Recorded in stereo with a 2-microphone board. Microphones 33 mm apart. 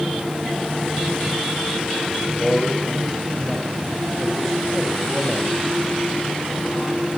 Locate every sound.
2.3 s a man speaking: 5° left (ahead or behind), 5.5 m